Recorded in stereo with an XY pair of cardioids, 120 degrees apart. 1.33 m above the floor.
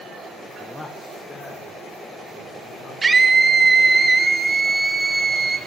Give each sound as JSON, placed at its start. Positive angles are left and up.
{"t": 0.6, "sound": "a man speaking", "azimuth_deg": 0, "distance_m": 0.8}
{"t": 3.0, "sound": "a scream", "azimuth_deg": -20, "distance_m": 1.2}